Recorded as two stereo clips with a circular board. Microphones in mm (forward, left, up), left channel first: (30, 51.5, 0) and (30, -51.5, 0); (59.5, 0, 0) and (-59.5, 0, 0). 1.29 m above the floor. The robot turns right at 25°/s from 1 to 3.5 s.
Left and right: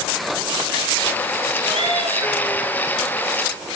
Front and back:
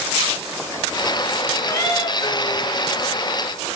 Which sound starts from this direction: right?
A cat meowing, at 1.7 s.